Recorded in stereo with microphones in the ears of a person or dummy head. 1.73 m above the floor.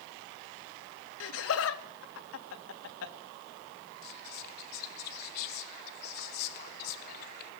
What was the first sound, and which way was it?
Laughter, 80° left.